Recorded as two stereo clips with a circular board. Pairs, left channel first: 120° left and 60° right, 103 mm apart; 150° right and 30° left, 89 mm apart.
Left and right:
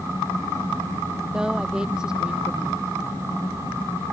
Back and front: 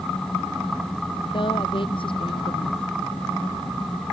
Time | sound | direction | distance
1.3 | a woman speaking | 140° right | ?